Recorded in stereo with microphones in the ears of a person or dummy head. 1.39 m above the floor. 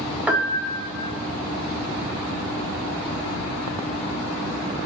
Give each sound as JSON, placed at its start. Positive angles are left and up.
{"t": 0.3, "sound": "a piano", "side_deg": 0, "distance_m": 1.2}